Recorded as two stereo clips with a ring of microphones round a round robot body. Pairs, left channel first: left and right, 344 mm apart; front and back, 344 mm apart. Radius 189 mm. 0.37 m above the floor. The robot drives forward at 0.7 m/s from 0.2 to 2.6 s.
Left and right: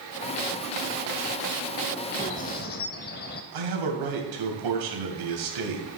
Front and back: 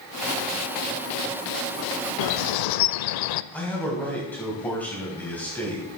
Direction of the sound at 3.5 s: 85° right.